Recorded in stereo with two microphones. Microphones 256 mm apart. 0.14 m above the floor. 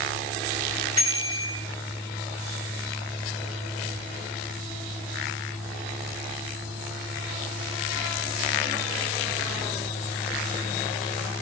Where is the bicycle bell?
85° left, 9 m.